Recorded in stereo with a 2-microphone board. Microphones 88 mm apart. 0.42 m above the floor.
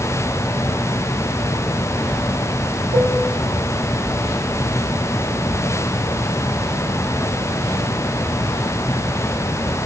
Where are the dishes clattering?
85° right, 7.5 m.